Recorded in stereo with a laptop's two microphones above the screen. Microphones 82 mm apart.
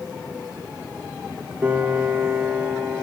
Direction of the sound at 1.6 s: 20° right (ahead or behind).